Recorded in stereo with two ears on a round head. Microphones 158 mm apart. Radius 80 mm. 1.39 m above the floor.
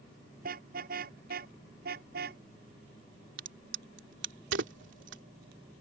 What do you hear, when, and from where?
0.4 s a car horn: 55° right (ahead or behind); by 2.4 s 60° right (ahead or behind)
3.4 s a crack: 70° right (ahead or behind)